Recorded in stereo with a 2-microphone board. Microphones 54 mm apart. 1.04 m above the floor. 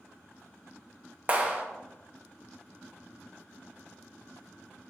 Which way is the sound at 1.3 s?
25° right (ahead or behind).